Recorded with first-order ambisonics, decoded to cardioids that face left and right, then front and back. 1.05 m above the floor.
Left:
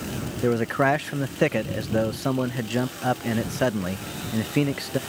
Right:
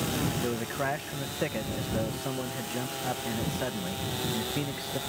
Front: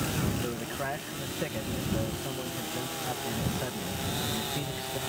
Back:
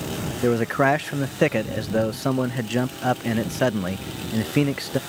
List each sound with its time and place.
0.4 s a man speaking: 145° left